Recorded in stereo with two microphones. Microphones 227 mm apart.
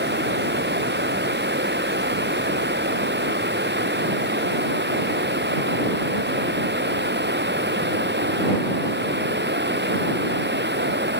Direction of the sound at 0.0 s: 50° right (ahead or behind).